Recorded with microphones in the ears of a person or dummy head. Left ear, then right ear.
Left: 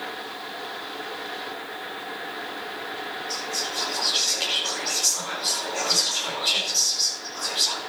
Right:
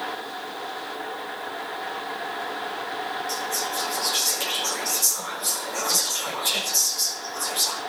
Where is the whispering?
50° right (ahead or behind), 6 m.